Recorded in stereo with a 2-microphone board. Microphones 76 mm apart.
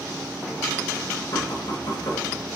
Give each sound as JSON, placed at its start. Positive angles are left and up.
{"t": 1.3, "sound": "knocking", "side_deg": 55, "distance_m": 2.5}